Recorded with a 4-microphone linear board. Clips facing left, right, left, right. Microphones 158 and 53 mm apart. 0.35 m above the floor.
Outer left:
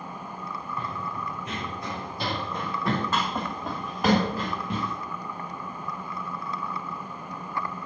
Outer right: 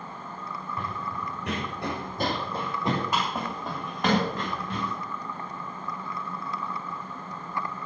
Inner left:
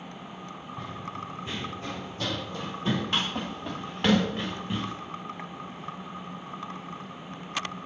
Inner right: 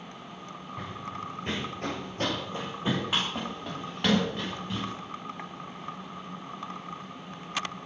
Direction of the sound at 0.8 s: 75° right (ahead or behind).